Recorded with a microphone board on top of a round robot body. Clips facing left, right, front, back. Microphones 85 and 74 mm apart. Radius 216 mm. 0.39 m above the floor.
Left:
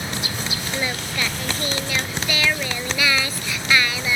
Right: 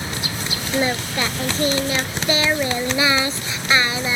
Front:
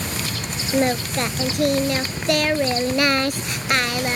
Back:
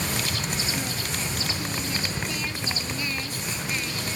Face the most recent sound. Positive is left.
turn(degrees=-25)